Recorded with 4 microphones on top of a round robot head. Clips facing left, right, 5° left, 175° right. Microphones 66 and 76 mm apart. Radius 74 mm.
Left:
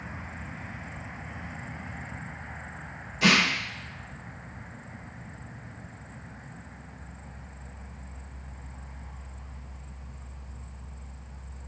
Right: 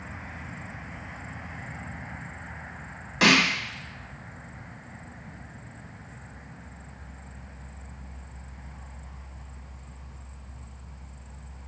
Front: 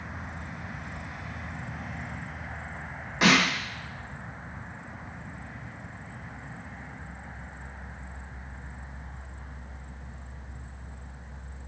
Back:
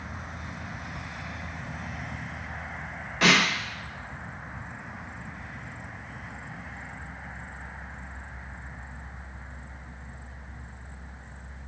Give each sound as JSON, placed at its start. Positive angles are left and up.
{"t": 3.2, "sound": "a snare drum", "azimuth_deg": -70, "distance_m": 1.9}